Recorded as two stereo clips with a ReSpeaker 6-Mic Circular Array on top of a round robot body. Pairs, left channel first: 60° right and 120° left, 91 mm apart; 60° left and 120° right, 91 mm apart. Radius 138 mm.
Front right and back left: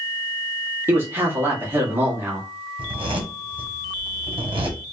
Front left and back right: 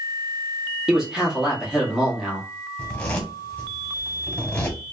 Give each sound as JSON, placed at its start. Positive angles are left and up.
{"t": 0.9, "sound": "a man speaking", "azimuth_deg": 165, "distance_m": 1.5}
{"t": 2.8, "sound": "a zipper", "azimuth_deg": 135, "distance_m": 1.6}